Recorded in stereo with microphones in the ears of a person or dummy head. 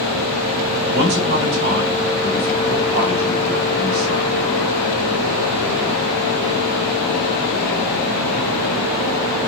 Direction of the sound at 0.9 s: 65° right (ahead or behind).